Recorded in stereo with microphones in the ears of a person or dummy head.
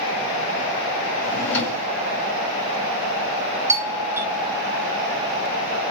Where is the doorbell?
15° right (ahead or behind), 0.5 m.